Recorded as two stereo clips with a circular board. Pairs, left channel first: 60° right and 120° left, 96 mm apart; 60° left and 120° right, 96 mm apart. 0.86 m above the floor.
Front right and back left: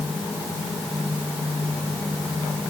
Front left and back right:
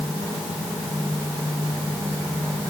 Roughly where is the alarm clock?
I don't hear an alarm clock.